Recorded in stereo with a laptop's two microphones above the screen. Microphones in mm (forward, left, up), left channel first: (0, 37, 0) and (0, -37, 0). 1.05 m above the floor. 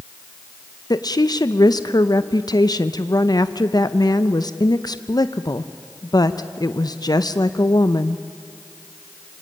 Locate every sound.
0.9 s a woman speaking: 60° left (ahead or behind), 0.7 m